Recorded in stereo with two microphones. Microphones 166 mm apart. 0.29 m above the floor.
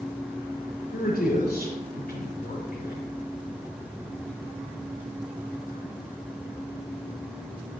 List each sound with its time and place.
0.9 s a man speaking: 70° left (ahead or behind), 4 m